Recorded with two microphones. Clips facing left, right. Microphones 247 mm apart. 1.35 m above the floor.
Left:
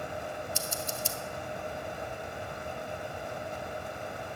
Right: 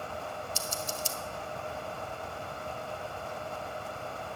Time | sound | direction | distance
0.6 | scissors | 65° left (ahead or behind) | 1.0 m